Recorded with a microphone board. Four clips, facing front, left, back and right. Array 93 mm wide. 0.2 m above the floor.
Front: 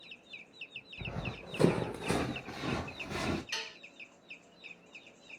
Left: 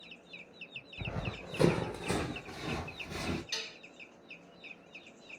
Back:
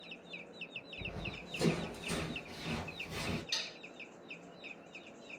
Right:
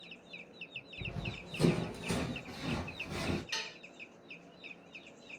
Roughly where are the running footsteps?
Ahead left.